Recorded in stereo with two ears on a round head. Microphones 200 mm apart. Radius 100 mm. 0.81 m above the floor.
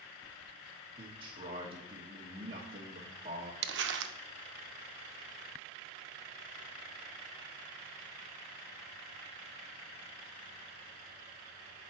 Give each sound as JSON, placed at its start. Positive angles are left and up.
{"t": 1.0, "sound": "a man speaking", "side_deg": -25, "distance_m": 1.2}
{"t": 3.6, "sound": "crumpling", "side_deg": -55, "distance_m": 0.5}